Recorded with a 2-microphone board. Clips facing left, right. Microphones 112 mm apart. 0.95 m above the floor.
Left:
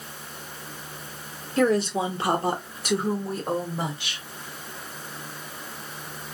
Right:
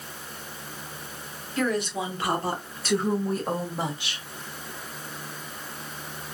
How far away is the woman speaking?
About 1.1 m.